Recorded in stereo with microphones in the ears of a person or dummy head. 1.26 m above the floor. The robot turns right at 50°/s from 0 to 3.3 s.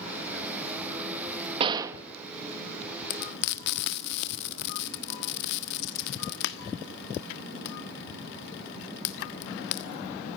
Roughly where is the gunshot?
Right.